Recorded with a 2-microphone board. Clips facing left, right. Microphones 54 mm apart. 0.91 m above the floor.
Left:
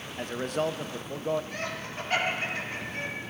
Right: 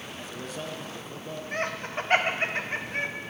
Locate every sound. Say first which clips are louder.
0.2 s a man speaking: left 9 dB; 55° left (ahead or behind), 0.6 m
1.5 s laughter: right 4 dB; 35° right (ahead or behind), 1.0 m